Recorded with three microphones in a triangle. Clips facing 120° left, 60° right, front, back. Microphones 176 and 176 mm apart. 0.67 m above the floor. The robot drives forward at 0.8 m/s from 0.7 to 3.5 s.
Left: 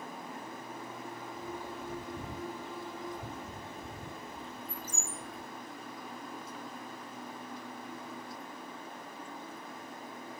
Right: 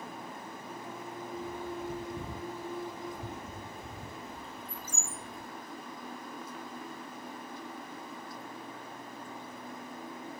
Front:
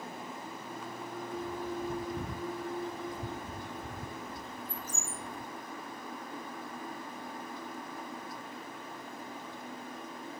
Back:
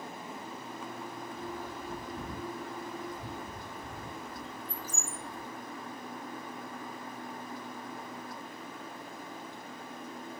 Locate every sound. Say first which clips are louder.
1.4 s a bird: right 5 dB, front 7 dB; 40° left, 3.5 m; by 5.5 s 70° left, 2.5 m